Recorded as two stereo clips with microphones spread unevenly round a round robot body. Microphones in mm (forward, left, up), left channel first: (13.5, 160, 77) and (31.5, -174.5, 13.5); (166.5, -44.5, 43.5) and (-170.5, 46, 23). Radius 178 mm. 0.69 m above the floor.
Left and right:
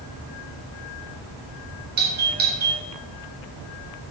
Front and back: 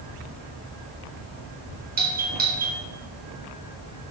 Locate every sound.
2.0 s a doorbell: 135° right, 3 m